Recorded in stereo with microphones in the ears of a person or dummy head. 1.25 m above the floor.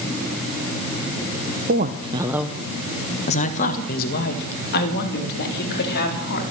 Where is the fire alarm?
No fire alarm in this recording.